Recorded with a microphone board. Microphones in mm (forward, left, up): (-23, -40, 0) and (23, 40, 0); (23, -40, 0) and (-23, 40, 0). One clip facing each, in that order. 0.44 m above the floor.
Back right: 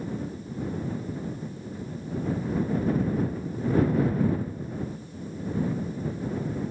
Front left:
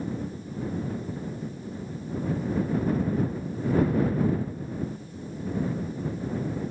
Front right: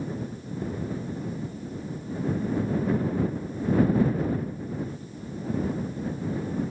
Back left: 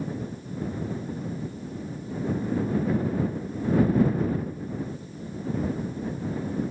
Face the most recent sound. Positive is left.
No sound to turn to.